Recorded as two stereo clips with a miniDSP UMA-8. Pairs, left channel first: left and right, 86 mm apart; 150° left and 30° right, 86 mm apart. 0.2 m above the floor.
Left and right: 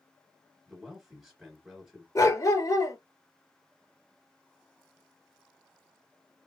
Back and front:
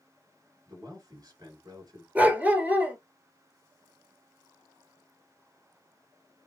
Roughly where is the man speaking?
Ahead.